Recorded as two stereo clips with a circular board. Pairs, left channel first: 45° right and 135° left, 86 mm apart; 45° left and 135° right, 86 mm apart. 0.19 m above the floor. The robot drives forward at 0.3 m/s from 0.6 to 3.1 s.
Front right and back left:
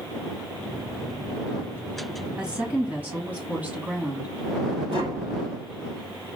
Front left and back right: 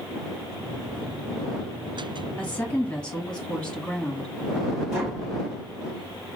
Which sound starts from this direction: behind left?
Tapping, at 4.9 s.